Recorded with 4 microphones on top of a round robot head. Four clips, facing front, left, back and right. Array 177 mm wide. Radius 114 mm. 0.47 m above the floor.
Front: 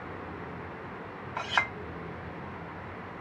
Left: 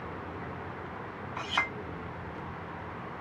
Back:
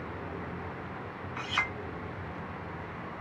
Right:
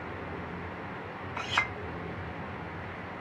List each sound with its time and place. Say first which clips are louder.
1.4 s a clink: right 1 dB, front 4 dB; 5° left, 1.7 m